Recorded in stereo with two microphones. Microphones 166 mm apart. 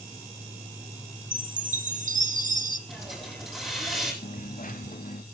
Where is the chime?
50° right (ahead or behind), 1.0 m.